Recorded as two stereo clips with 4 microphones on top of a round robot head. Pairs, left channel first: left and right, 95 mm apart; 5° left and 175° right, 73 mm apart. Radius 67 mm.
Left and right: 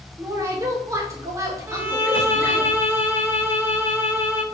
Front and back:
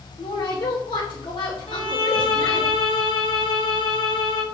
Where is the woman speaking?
35° right, 3 m.